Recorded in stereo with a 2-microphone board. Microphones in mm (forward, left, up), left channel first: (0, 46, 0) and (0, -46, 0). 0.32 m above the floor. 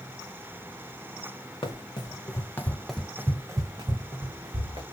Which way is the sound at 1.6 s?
55° left (ahead or behind).